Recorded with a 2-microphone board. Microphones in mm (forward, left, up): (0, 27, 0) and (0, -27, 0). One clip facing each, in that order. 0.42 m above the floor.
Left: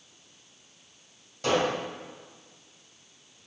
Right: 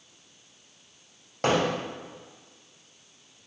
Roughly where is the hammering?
Right.